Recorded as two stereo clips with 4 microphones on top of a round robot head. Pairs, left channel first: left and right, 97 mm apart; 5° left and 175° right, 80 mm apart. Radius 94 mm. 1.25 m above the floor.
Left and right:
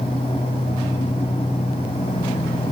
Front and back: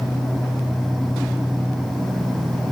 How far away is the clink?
I don't hear a clink.